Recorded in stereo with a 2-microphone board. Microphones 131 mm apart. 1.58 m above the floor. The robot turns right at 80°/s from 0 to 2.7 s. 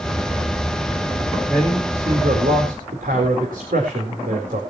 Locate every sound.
1.5 s a man speaking: 170° left, 4.5 m; by 4.6 s 90° right, 4.5 m